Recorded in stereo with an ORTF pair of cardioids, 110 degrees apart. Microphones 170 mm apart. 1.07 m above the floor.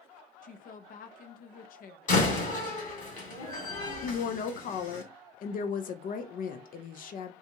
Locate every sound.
0.4 s a woman speaking: 55° left, 0.6 m
2.1 s a door slam: 50° left, 1.8 m
4.0 s a woman speaking: 55° left, 0.5 m